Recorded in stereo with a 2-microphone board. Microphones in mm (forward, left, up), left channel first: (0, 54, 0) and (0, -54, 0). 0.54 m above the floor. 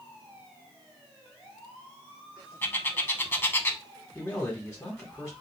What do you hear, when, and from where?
2.6 s a bird: 20° left (ahead or behind), 0.6 m
4.2 s a man speaking: 10° left (ahead or behind), 1.6 m